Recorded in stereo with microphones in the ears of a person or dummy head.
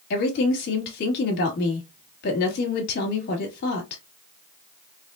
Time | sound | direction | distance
0.1 | a woman speaking | 60° left (ahead or behind) | 1.8 m